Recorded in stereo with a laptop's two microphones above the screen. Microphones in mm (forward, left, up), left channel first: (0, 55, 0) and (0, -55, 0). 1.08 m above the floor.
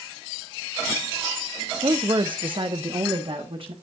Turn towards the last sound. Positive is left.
turn(degrees=-60)  # may be behind; listen again after turning